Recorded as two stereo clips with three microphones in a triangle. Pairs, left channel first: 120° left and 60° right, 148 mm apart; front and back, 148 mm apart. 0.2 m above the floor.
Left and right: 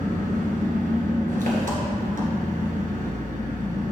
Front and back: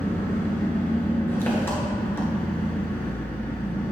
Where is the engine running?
75° right, 1.8 m.